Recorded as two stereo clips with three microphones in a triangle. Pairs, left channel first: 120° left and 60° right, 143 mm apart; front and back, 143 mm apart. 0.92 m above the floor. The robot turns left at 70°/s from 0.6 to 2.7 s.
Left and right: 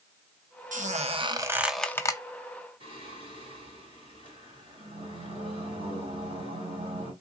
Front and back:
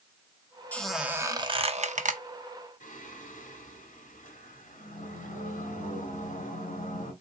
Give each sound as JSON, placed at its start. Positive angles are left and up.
{"t": 0.7, "sound": "a squeak", "azimuth_deg": -75, "distance_m": 0.6}
{"t": 2.8, "sound": "singing", "azimuth_deg": -15, "distance_m": 2.0}